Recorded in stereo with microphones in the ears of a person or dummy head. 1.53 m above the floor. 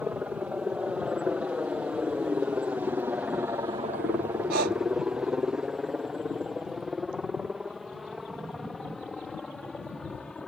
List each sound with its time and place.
0.0 s a helicopter: 5° right (ahead or behind); by 10.5 s centre (ahead or behind)
4.5 s breathing: 50° right (ahead or behind)